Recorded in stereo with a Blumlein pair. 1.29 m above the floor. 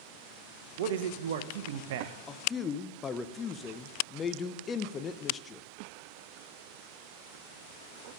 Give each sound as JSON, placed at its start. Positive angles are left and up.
{"t": 0.8, "sound": "a man speaking", "azimuth_deg": -55, "distance_m": 0.7}
{"t": 2.3, "sound": "a man speaking", "azimuth_deg": 20, "distance_m": 0.6}